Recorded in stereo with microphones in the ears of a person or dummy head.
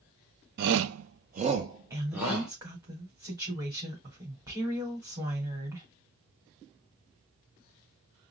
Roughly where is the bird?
No bird in this recording.